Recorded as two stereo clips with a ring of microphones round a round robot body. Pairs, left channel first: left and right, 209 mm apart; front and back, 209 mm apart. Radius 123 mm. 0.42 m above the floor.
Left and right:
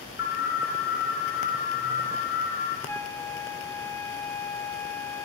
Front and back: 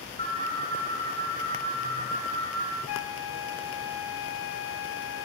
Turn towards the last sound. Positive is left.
turn(degrees=10)